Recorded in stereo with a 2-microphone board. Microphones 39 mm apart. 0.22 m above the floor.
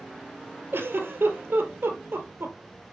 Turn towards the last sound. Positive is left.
turn(degrees=-80)